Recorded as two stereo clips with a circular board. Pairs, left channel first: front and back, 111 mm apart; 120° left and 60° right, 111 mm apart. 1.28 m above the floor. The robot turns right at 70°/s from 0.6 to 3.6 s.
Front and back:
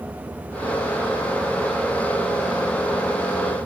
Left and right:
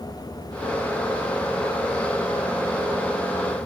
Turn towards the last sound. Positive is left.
No sound to turn to.